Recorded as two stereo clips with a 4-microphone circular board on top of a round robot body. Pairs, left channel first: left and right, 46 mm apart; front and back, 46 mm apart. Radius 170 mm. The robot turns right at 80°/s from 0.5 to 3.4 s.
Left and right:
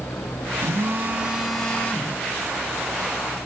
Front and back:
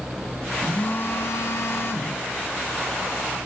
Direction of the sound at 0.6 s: 70° right.